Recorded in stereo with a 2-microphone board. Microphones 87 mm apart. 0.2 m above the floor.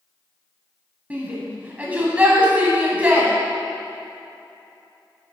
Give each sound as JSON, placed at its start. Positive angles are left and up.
{"t": 1.1, "sound": "a shout", "side_deg": -20, "distance_m": 1.1}